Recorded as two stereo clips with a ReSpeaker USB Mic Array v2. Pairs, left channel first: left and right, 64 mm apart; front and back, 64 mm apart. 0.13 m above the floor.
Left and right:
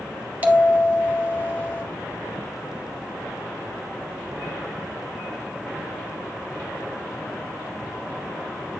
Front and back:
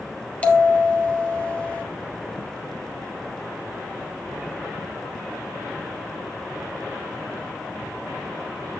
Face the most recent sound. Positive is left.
turn(degrees=-50)